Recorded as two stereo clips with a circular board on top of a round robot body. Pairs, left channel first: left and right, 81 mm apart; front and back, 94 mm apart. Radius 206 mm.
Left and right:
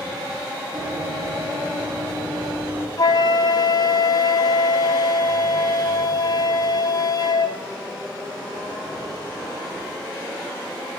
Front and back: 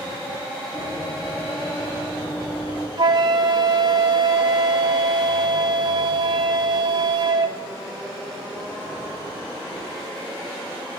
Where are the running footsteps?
30° right, 8.5 m; by 2.9 s 20° right, 9.5 m.